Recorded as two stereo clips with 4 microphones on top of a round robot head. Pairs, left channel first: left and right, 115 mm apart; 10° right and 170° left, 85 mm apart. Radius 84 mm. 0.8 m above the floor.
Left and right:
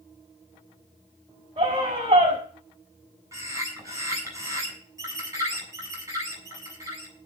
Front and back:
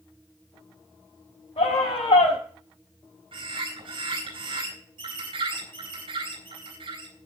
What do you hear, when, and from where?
1.6 s a scream: 35° right, 6 m
3.3 s a bird: 150° right, 8.5 m